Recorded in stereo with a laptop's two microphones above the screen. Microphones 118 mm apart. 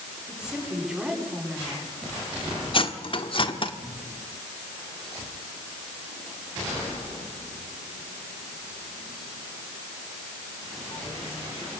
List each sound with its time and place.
0.3 s a woman speaking: 5° right (ahead or behind), 9 m
2.7 s cutlery clinking: 45° left (ahead or behind), 1.4 m